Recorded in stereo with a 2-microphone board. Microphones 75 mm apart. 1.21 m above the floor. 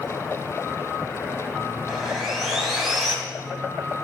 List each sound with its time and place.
1.9 s sawing: 5° right (ahead or behind), 2.5 m